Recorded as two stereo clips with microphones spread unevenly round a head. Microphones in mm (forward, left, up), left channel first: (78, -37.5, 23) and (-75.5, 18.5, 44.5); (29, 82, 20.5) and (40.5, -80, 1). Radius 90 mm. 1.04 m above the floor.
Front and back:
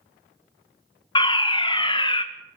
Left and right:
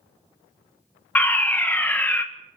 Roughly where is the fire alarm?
Ahead.